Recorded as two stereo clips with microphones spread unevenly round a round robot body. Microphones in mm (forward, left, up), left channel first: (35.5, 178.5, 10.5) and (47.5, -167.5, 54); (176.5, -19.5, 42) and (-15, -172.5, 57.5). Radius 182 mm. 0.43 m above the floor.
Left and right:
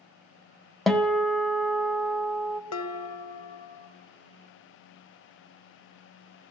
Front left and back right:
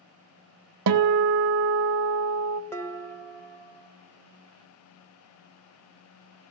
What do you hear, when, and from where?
0.9 s a guitar: straight behind, 0.5 m
2.7 s dishes clattering: 115° left, 1.0 m